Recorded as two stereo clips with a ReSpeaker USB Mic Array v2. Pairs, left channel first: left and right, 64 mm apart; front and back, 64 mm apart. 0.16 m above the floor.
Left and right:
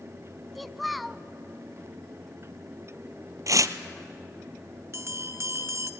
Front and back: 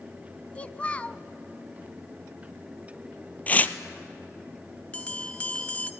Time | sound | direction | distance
0.6 | a child speaking | straight ahead | 0.6 m
3.5 | tearing paper | 65° right | 0.8 m
4.9 | a bell | 65° right | 0.7 m